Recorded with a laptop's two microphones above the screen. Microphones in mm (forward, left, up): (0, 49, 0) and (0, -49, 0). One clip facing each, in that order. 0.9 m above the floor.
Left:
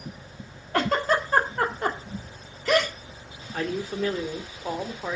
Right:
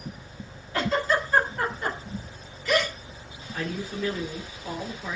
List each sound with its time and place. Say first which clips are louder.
0.7 s a giggle: left 2 dB; 65° left (ahead or behind), 2 m
3.5 s a man speaking: left 3 dB; 50° left (ahead or behind), 2.5 m